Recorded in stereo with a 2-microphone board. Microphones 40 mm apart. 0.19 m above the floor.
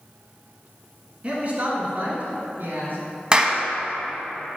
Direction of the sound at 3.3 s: 25° right (ahead or behind).